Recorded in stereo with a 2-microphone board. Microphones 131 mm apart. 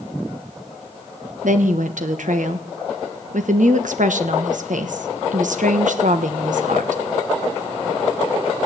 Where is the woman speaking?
75° right (ahead or behind), 1.3 m.